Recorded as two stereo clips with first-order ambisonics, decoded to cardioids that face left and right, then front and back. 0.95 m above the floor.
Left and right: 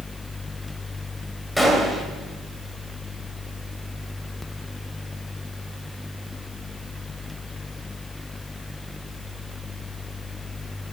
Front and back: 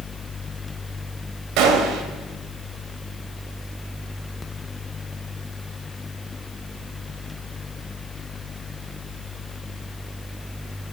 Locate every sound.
1.6 s a gunshot: 175° left, 1.2 m